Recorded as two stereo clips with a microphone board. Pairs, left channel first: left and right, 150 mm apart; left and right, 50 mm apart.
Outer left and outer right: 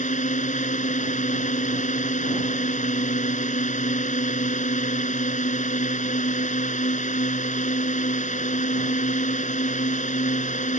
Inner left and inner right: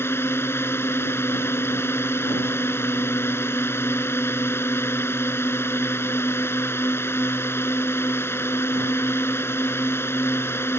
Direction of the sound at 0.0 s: 55° left (ahead or behind).